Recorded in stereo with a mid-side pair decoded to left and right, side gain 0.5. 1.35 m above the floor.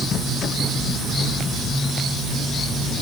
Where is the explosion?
No explosion in this recording.